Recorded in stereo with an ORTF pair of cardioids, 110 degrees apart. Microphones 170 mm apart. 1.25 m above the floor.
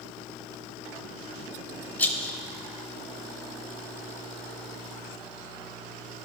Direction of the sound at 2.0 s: 10° left.